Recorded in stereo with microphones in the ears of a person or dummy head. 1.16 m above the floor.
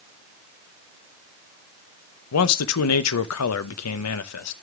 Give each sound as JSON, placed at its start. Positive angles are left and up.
{"t": 2.3, "sound": "a man speaking", "side_deg": 90, "distance_m": 0.7}